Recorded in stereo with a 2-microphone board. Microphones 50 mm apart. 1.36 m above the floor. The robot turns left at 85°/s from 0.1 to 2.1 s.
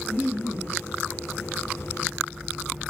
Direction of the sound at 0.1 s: 135° right.